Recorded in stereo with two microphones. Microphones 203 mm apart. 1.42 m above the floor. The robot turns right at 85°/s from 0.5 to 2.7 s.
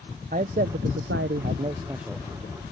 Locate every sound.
0.3 s a man speaking: 135° right; by 2.5 s 40° left